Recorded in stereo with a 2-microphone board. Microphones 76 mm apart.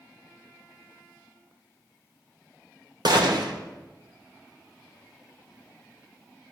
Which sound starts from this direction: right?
A gunshot, at 3.0 s.